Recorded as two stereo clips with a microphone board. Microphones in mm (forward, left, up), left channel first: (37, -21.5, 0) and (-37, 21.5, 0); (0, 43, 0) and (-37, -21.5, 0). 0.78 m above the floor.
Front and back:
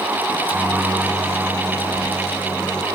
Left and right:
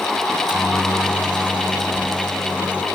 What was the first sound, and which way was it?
A microwave, 50° right.